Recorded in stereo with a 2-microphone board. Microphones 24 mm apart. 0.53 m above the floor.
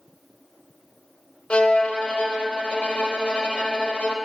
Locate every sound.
1.5 s a violin: 85° left, 0.7 m